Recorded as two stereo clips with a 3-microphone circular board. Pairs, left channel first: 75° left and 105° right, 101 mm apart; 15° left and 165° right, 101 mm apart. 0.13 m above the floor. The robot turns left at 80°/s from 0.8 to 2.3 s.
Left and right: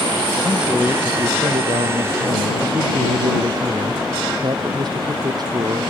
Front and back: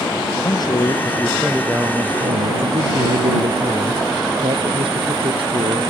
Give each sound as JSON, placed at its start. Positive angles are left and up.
{"t": 0.4, "sound": "a man speaking", "azimuth_deg": -25}